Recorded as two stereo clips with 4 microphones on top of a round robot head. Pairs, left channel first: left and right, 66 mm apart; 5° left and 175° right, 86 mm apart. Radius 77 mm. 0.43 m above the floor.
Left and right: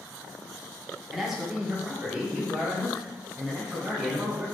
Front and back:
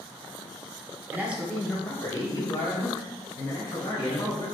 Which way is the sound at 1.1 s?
170° right.